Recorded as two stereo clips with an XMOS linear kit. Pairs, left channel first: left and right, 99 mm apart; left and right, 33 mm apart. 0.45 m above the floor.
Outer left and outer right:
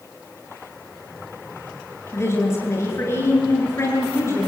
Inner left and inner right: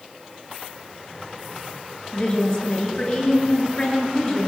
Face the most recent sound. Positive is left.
turn(degrees=25)  # may be behind; listen again after turning